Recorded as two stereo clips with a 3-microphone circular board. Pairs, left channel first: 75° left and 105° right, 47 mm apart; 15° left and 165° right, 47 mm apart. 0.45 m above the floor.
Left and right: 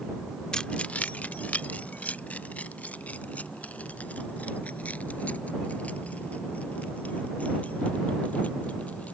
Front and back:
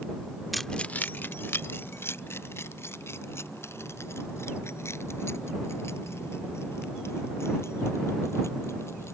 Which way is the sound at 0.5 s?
110° left.